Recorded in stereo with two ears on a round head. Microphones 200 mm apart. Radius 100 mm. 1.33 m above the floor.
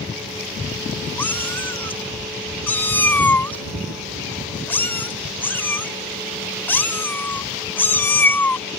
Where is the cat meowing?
10° left (ahead or behind).